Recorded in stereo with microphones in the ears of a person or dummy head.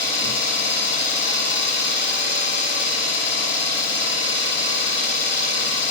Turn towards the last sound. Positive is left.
turn(degrees=45)  # may be behind; listen again after turning